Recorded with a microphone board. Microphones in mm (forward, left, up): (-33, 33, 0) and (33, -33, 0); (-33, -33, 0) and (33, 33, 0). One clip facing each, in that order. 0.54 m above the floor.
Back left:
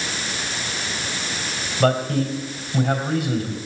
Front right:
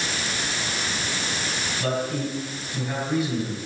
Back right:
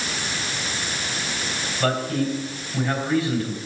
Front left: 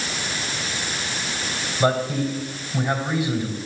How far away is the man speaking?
About 3.5 m.